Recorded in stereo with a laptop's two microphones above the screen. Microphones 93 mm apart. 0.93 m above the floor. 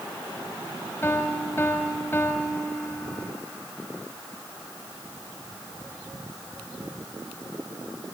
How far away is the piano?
About 1.5 m.